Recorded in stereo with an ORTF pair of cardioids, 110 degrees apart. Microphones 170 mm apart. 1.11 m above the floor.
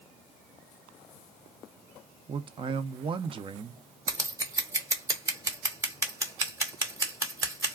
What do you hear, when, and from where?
2.3 s a man speaking: 35° right, 0.6 m
4.1 s scissors: 20° right, 0.9 m